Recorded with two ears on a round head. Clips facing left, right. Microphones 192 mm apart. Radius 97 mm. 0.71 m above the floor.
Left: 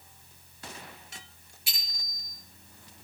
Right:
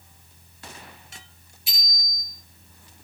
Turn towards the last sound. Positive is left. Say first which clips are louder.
# right 7 dB
turn(degrees=45)  # may be behind; listen again after turning